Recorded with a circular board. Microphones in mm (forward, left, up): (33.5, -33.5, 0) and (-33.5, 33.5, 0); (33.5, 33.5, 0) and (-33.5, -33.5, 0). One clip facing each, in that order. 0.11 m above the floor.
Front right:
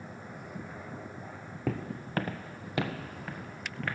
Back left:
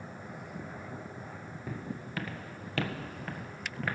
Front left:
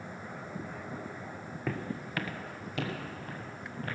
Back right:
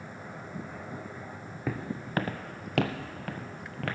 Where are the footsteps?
55° right, 0.8 m; by 4.0 s 140° right, 1.8 m.